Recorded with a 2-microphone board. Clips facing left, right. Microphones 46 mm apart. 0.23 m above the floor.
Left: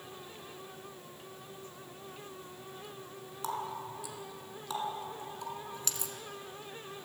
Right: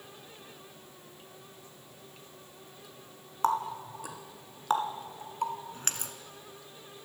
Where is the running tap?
45° right (ahead or behind), 1.4 m.